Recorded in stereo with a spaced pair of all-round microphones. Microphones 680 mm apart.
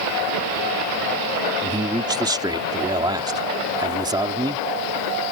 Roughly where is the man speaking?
Centre.